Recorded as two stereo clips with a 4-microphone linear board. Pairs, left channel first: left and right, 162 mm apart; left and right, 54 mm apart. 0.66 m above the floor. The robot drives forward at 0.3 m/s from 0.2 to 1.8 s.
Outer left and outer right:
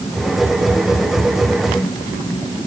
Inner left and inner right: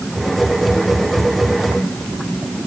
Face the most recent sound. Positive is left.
No sound to turn to.